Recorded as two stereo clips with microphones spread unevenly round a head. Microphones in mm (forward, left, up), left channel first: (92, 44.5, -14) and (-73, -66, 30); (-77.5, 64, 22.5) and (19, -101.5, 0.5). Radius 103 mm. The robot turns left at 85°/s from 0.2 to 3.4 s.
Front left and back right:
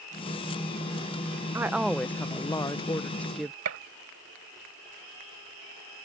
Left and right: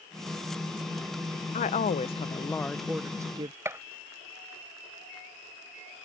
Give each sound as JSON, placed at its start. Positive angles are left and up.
{"t": 1.5, "sound": "a woman speaking", "azimuth_deg": 125}
{"t": 3.6, "sound": "a gunshot", "azimuth_deg": -140}